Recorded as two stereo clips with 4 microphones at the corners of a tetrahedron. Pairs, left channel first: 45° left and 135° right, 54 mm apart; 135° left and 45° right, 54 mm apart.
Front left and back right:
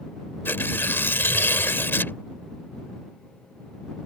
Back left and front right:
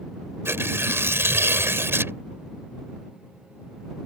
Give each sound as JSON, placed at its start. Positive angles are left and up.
{"t": 0.5, "sound": "tearing paper", "azimuth_deg": -5}